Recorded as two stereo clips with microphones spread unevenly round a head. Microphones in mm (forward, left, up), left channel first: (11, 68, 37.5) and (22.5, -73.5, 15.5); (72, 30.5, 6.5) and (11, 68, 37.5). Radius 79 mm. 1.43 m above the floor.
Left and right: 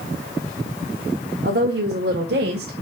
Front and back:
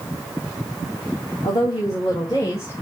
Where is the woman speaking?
80° right, 1.8 m; by 2.7 s 115° right, 1.3 m.